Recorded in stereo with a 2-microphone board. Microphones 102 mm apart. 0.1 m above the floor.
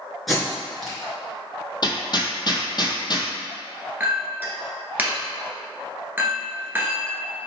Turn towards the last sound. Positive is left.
turn(degrees=-20)  # may be behind; listen again after turning